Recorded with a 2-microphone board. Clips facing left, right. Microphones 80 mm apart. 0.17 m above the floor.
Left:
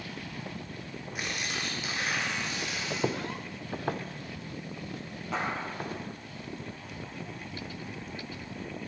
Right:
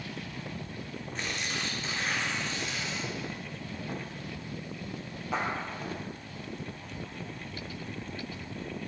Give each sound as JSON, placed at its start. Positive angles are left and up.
{"t": 1.1, "sound": "tearing paper", "side_deg": 10, "distance_m": 3.0}
{"t": 2.9, "sound": "footsteps", "side_deg": 50, "distance_m": 1.0}
{"t": 5.3, "sound": "a clap", "side_deg": 0, "distance_m": 4.0}